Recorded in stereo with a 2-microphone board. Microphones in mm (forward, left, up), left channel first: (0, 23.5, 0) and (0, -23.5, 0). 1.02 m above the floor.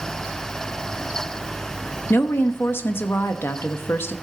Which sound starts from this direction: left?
A woman speaking, at 2.1 s.